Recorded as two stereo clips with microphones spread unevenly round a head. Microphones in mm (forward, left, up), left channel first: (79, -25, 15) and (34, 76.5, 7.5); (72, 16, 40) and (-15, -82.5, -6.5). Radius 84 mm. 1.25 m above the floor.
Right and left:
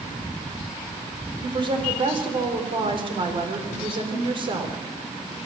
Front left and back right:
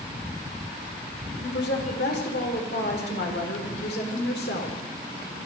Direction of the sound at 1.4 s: 70° left.